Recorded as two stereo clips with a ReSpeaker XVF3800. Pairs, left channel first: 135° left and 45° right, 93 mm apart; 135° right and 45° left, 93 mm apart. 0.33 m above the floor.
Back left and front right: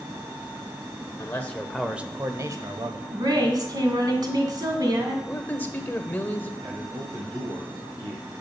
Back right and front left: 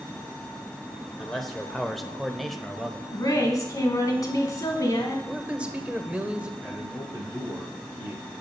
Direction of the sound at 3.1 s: 85° right.